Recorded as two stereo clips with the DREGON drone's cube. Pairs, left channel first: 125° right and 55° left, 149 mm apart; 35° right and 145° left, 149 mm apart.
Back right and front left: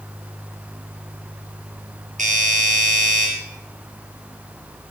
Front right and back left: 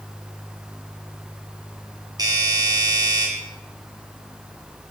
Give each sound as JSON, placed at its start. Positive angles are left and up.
{"t": 2.2, "sound": "a doorbell", "azimuth_deg": 85, "distance_m": 8.0}